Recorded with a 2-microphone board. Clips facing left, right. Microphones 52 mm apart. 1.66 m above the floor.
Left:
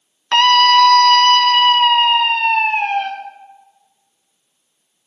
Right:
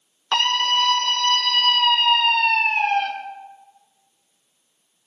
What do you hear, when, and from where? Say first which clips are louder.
0.3 s a scream: left 10 dB; 65° left (ahead or behind), 0.7 m; by 3.1 s 15° left (ahead or behind), 1.6 m